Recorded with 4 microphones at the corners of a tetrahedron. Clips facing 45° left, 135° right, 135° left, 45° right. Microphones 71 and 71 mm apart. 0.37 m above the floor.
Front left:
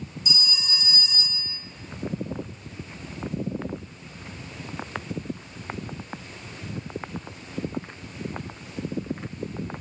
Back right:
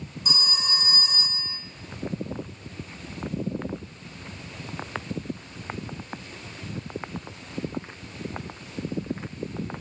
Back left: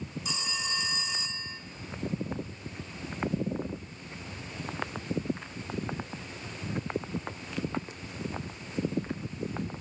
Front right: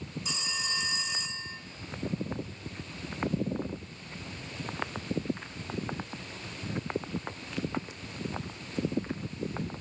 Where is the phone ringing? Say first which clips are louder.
Back right 4 dB, back left 1 dB; 135° right, 1.2 m.